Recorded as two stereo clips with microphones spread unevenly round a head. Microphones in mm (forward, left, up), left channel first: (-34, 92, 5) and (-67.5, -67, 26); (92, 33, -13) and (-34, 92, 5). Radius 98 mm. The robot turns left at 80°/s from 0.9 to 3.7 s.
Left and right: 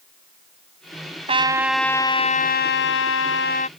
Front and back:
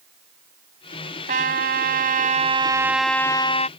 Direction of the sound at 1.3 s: 155° right.